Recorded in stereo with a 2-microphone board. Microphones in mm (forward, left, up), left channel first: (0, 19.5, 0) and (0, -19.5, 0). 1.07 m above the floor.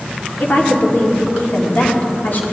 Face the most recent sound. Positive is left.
turn(degrees=55)  # may be behind; listen again after turning